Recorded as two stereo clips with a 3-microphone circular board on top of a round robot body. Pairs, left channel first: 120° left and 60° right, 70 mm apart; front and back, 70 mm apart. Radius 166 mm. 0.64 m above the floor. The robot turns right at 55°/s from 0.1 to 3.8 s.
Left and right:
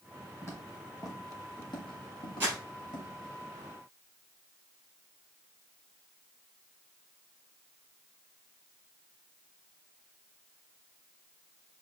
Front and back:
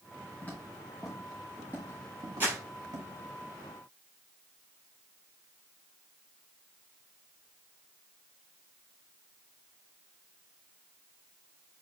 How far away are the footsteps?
About 1.6 m.